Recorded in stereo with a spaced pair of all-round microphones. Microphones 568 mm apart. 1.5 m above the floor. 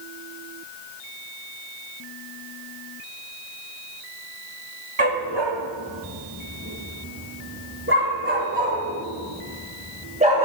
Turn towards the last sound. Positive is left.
turn(degrees=-10)  # may be behind; listen again after turning